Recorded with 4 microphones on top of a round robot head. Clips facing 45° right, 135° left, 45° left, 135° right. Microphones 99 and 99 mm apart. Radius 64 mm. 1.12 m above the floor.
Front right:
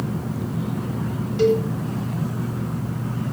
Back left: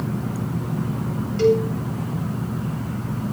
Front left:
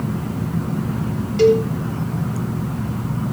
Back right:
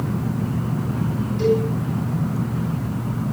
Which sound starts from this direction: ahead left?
A cowbell, at 1.4 s.